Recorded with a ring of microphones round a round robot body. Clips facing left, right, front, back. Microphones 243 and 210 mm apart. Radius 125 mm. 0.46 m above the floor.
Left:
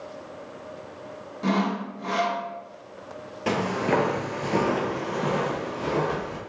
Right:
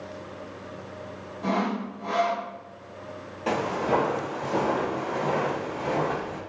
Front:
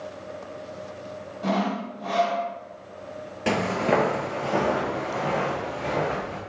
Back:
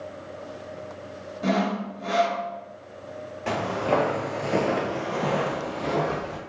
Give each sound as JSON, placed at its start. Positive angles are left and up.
{"t": 1.4, "sound": "sawing", "azimuth_deg": 130, "distance_m": 0.5}
{"t": 3.5, "sound": "footsteps", "azimuth_deg": 30, "distance_m": 0.6}